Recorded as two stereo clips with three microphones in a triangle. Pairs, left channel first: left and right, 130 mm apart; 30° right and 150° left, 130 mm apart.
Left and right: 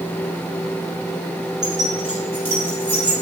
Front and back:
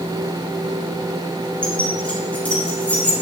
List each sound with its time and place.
1.6 s keys jangling: 110° right, 3.5 m; by 3.1 s 105° right, 5 m